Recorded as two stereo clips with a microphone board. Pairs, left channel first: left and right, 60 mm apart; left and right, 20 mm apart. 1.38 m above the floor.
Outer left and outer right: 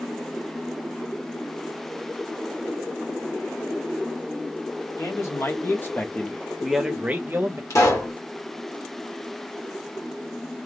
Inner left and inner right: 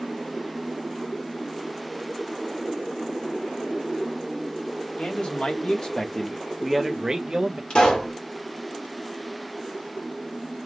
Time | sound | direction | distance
5.0 | a man speaking | 55° left (ahead or behind) | 1.3 m
7.7 | a pop | 55° left (ahead or behind) | 1.3 m